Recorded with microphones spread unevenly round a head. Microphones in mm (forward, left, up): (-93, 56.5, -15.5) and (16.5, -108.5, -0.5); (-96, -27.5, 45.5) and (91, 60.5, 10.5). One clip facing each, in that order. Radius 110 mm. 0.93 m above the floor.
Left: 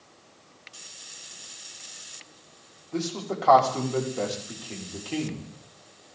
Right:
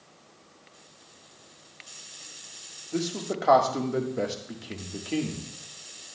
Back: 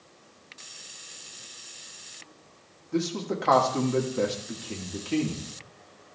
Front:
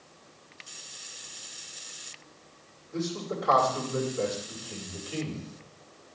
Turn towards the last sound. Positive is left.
turn(degrees=-130)